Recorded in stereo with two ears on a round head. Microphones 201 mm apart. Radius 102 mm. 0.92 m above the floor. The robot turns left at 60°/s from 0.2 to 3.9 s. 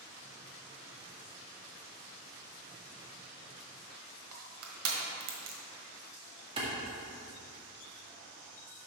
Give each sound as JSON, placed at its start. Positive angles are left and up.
{"t": 4.3, "sound": "crushing", "side_deg": -65, "distance_m": 1.4}
{"t": 6.6, "sound": "a clap", "side_deg": -25, "distance_m": 1.7}